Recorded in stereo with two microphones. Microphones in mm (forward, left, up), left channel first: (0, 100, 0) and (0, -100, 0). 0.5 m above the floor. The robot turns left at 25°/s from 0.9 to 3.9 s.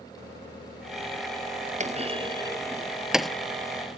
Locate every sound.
1.8 s a clunk: 35° right (ahead or behind); by 3.3 s centre (ahead or behind)